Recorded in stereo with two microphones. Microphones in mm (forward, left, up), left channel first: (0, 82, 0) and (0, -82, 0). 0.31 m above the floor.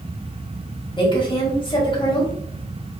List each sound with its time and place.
1.0 s a woman speaking: 30° left (ahead or behind), 1.3 m